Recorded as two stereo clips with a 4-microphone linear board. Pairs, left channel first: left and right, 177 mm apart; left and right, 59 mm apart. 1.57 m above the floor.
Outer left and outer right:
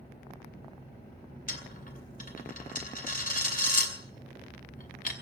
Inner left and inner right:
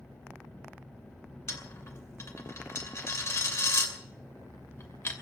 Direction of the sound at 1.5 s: 50° left (ahead or behind).